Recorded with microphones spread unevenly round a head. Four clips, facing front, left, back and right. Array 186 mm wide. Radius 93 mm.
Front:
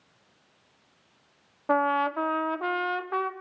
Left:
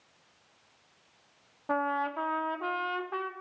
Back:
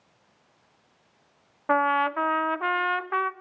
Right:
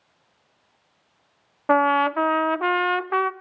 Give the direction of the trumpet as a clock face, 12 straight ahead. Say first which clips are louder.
Right 11 dB, back 1 dB; 2 o'clock.